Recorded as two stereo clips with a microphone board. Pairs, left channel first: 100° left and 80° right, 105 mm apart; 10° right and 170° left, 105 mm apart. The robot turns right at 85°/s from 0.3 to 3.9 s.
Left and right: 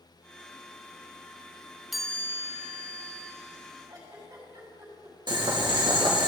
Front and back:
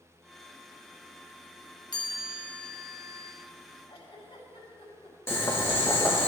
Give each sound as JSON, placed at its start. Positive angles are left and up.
{"t": 1.9, "sound": "a chime", "azimuth_deg": 10, "distance_m": 0.7}
{"t": 3.9, "sound": "a giggle", "azimuth_deg": -35, "distance_m": 3.0}
{"t": 5.3, "sound": "boiling", "azimuth_deg": -70, "distance_m": 1.1}